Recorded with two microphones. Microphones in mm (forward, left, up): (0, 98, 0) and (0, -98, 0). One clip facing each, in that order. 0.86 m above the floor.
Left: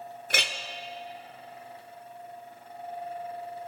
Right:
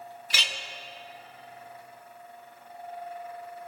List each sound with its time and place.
0.3 s a clink: 55° left (ahead or behind), 0.6 m